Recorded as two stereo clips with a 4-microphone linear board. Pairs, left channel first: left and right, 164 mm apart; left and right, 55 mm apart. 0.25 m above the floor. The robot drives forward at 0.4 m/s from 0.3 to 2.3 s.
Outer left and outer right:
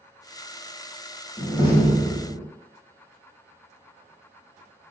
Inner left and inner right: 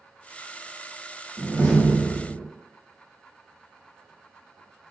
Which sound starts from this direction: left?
A door slam, at 1.4 s.